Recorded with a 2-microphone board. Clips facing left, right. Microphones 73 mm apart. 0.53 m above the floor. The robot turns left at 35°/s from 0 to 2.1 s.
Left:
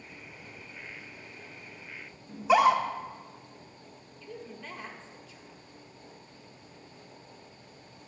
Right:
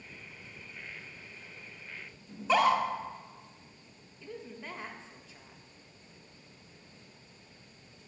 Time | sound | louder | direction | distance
2.3 | a scream | left 4 dB | 10° left (ahead or behind) | 0.8 m
4.2 | a woman speaking | even | 25° right (ahead or behind) | 0.9 m